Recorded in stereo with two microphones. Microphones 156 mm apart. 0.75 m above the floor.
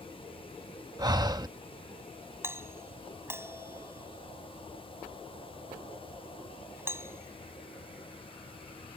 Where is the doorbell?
15° right (ahead or behind).